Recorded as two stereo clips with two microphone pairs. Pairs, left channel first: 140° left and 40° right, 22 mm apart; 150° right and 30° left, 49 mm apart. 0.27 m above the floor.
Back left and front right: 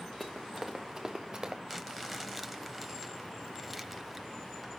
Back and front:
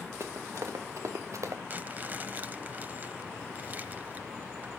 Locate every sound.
0.2 s running footsteps: 60° left, 2 m; by 1.6 s 20° left, 2.5 m
1.7 s crumpling: 45° left, 1.0 m